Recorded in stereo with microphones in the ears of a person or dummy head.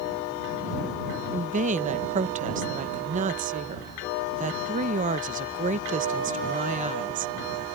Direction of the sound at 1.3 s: 40° right (ahead or behind).